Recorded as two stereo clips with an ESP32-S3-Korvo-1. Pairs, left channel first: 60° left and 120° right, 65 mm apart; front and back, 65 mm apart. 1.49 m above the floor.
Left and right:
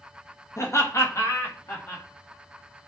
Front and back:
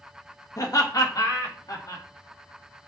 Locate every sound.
0.6 s laughter: 20° left, 1.6 m; by 2.0 s 15° left, 2.5 m